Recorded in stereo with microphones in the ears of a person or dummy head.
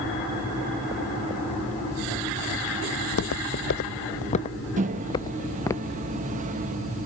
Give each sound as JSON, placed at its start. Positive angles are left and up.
{"t": 3.0, "sound": "footsteps", "side_deg": 60}
{"t": 4.8, "sound": "a microwave", "side_deg": -35}